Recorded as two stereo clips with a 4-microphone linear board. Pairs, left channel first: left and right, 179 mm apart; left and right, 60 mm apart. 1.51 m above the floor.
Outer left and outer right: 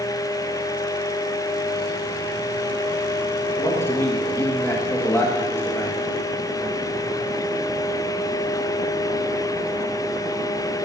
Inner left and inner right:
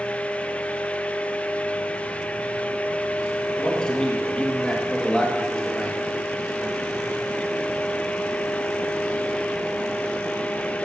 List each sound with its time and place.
3.6 s a man speaking: 10° left (ahead or behind), 2 m